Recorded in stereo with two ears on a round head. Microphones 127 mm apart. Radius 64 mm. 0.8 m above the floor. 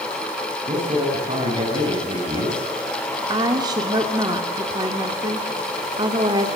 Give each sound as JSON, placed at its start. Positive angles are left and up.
{"t": 0.7, "sound": "a man speaking", "side_deg": -35, "distance_m": 8.0}
{"t": 3.3, "sound": "a woman speaking", "side_deg": -30, "distance_m": 1.9}